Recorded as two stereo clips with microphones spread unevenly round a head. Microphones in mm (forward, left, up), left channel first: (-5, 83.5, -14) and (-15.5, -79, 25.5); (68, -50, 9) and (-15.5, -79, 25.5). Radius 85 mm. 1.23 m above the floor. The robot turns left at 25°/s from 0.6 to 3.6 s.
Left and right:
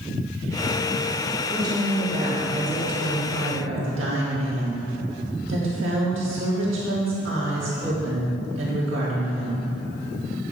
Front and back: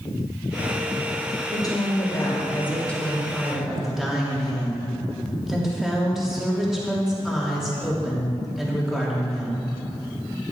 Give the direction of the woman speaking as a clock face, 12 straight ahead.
1 o'clock.